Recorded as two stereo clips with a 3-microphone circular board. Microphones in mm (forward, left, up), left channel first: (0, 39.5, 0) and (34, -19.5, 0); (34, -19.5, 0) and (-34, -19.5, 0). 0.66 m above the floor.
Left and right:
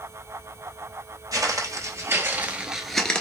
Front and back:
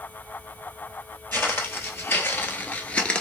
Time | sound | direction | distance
1.3 | footsteps | 55° right | 1.1 m